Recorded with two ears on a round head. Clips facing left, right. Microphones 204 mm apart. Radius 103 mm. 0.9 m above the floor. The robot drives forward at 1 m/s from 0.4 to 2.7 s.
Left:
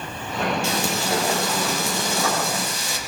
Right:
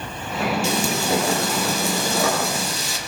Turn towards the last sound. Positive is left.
turn(degrees=-70)  # may be behind; listen again after turning